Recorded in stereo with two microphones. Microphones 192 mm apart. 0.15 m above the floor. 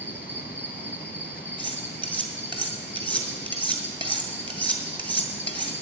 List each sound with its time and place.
0.0 s an insect: 50° left (ahead or behind), 1.3 m
1.6 s cutlery clinking: 25° right (ahead or behind), 1.6 m